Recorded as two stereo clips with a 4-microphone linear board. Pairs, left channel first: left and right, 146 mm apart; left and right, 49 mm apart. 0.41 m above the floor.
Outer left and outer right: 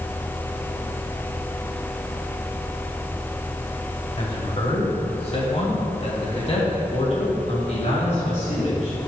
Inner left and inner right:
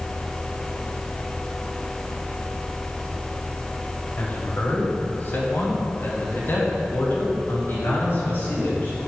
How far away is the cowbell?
No cowbell in this recording.